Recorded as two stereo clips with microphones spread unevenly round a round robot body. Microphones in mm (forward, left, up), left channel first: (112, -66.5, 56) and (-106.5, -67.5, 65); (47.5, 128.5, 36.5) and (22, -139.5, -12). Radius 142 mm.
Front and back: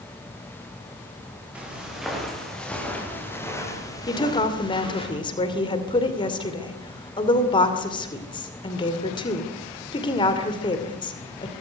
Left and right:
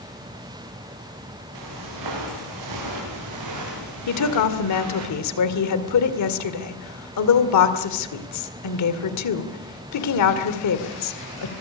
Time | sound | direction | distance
1.6 | footsteps | 95° right | 9.5 m
4.1 | a woman speaking | 65° left | 2.5 m